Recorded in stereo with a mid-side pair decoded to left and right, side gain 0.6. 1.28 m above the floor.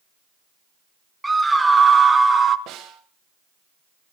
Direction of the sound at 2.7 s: 55° right.